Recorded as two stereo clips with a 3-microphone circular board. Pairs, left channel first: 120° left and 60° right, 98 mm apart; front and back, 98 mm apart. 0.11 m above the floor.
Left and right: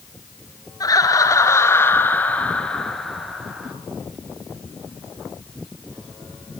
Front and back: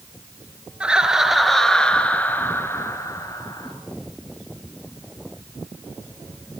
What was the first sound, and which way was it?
Laughter, 105° left.